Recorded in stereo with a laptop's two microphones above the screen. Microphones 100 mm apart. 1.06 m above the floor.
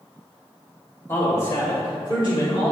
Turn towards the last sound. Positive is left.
turn(degrees=55)  # may be behind; listen again after turning